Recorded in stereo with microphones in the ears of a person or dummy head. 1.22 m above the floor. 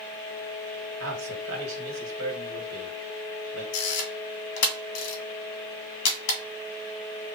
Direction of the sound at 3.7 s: 75° left (ahead or behind).